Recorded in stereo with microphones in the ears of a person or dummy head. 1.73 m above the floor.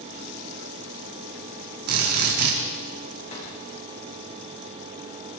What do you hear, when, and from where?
1.9 s a drill: 55° right (ahead or behind), 4 m
3.3 s a drawer: 35° left (ahead or behind), 8 m